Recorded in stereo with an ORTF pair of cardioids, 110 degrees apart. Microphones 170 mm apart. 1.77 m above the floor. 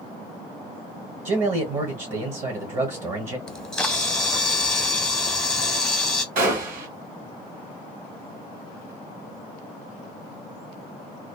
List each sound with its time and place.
1.2 s a man speaking: 50° right, 1.3 m
3.5 s a camera shutter: 5° left, 0.6 m
6.3 s a gunshot: 60° right, 1.7 m